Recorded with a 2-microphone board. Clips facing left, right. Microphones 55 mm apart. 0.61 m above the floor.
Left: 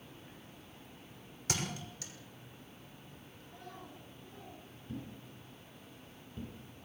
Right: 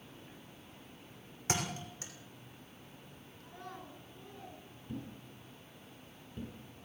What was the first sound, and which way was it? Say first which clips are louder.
A thud: right 2 dB; 30° right (ahead or behind).